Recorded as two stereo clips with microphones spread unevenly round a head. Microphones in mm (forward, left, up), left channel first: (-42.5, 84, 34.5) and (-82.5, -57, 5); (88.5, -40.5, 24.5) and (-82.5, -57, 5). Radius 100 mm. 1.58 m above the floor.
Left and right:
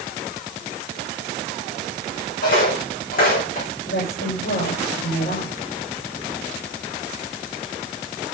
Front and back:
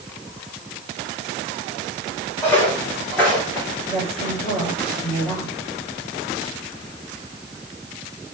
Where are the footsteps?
85° left, 5 m; by 3.7 s 90° left, 5.5 m.